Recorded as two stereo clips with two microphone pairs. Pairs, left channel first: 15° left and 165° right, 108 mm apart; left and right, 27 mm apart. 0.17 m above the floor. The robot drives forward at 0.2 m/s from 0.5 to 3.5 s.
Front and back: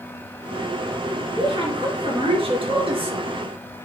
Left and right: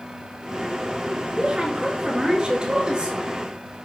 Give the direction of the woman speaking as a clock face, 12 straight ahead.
5 o'clock.